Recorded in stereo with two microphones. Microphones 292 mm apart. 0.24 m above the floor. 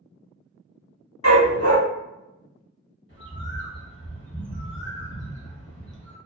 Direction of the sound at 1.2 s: 70° left (ahead or behind).